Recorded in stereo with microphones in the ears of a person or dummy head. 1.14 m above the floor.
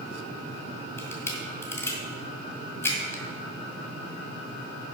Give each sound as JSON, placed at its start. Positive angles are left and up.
{"t": 1.0, "sound": "a camera shutter", "side_deg": 15, "distance_m": 2.0}